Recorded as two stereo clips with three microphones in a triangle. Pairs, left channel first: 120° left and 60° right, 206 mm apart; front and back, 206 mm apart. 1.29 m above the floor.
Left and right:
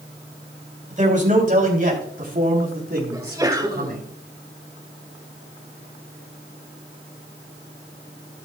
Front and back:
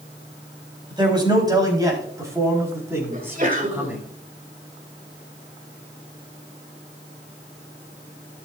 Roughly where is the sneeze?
Behind right.